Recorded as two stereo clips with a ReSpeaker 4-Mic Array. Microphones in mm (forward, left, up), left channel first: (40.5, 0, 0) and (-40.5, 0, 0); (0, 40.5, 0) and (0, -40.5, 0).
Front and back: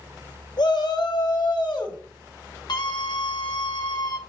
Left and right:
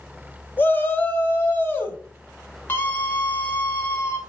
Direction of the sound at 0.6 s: 25° left.